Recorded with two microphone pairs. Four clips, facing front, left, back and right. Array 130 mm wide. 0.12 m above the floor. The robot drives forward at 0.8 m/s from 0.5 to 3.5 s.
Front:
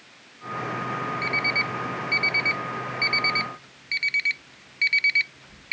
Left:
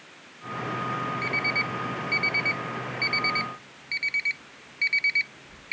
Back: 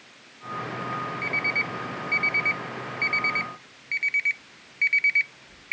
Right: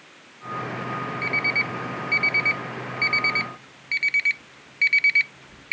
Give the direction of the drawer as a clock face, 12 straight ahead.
I don't hear a drawer.